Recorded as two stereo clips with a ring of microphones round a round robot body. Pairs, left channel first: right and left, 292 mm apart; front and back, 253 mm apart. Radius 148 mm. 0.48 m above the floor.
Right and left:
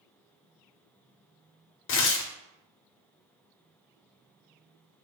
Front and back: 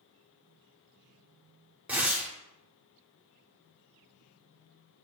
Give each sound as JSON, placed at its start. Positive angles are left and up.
{"t": 1.9, "sound": "tearing paper", "azimuth_deg": -100, "distance_m": 0.6}